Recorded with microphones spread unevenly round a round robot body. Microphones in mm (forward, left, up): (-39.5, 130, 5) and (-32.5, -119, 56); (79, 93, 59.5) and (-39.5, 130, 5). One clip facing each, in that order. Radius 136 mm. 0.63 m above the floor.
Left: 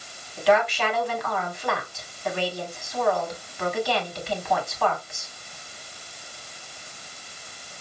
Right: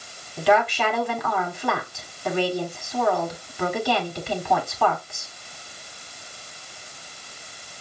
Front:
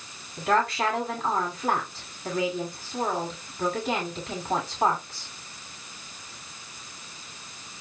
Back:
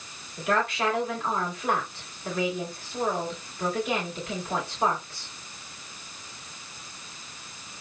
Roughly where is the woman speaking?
Right.